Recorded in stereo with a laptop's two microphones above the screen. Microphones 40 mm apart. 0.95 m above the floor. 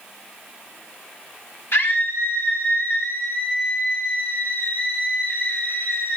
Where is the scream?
70° left (ahead or behind), 3 m.